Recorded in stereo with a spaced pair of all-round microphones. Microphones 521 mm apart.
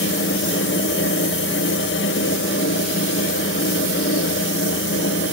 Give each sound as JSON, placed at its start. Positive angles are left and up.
{"t": 0.0, "sound": "a fan", "side_deg": 20, "distance_m": 1.1}